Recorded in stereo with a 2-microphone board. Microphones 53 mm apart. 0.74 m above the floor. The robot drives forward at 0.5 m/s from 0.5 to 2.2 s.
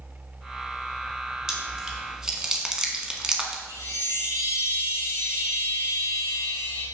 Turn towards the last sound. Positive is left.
turn(degrees=-80)